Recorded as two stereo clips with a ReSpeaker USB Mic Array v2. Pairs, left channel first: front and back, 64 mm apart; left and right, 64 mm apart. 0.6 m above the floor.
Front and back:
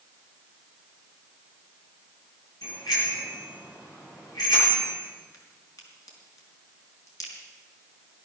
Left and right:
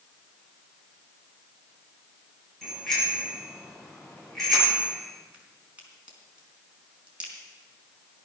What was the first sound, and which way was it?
A bicycle bell, 5° left.